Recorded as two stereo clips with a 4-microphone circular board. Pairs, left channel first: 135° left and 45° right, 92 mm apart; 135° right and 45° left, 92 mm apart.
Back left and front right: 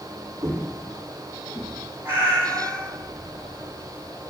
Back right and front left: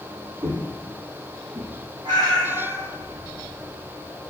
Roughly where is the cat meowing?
Ahead.